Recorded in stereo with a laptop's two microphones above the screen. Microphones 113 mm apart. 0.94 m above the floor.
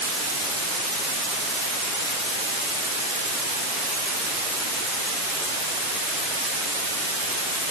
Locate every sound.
Only background noise.